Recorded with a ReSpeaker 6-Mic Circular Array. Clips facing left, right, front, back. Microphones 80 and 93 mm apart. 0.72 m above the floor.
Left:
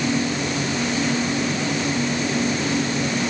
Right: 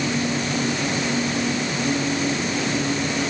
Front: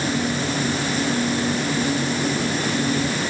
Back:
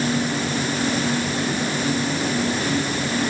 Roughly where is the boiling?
No boiling in this recording.